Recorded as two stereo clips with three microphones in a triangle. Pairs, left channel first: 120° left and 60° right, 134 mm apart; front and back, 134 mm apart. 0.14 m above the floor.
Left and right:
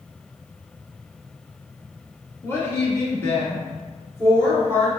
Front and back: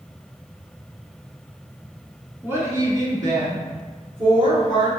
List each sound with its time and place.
2.4 s a woman speaking: 145° left, 1.4 m; by 4.9 s 175° right, 2 m